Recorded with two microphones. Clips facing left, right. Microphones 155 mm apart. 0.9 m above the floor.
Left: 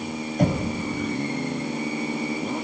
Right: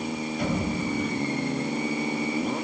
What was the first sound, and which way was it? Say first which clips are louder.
Knocking: left 5 dB; 45° left (ahead or behind).